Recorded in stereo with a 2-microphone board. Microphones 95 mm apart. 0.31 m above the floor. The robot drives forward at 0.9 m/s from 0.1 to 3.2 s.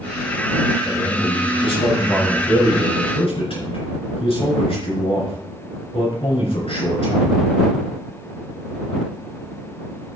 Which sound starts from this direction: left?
A man speaking, at 0.8 s.